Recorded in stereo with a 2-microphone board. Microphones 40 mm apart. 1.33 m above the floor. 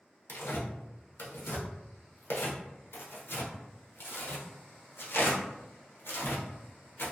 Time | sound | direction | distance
0.3 | tearing paper | 85° left | 0.6 m